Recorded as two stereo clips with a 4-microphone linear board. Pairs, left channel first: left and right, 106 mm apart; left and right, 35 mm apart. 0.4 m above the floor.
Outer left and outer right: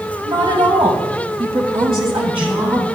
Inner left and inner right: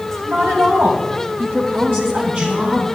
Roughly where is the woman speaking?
Right.